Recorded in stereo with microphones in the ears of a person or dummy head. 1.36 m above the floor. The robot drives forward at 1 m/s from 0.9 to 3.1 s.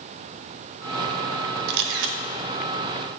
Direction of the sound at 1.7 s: 55° right (ahead or behind).